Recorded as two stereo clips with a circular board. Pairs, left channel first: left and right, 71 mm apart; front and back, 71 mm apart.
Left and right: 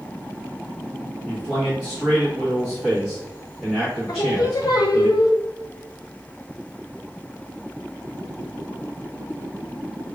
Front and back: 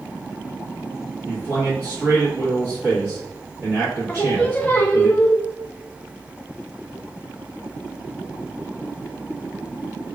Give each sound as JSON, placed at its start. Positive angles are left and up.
{"t": 1.2, "sound": "a man speaking", "azimuth_deg": -165, "distance_m": 1.2}
{"t": 4.1, "sound": "singing", "azimuth_deg": 65, "distance_m": 0.5}